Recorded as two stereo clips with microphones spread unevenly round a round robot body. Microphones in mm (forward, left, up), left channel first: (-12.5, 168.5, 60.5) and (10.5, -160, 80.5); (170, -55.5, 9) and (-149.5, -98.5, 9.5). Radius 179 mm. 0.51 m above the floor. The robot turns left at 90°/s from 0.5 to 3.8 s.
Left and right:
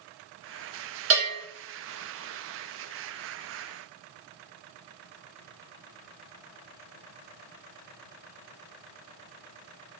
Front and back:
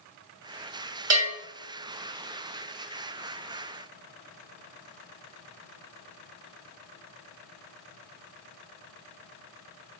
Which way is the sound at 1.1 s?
135° right.